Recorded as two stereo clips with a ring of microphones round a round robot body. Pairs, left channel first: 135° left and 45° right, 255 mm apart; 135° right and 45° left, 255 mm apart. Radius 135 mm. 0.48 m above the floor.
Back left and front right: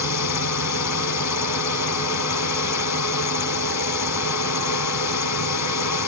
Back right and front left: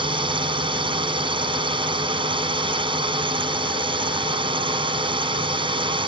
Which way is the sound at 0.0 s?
115° left.